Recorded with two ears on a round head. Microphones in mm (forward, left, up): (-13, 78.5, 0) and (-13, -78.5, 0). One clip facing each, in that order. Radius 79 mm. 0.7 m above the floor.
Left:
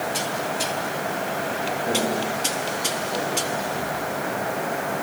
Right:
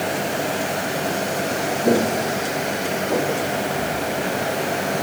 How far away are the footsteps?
About 4.5 m.